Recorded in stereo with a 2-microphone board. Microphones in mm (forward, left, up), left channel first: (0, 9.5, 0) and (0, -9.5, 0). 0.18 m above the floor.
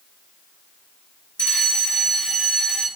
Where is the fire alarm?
60° left (ahead or behind), 5 m.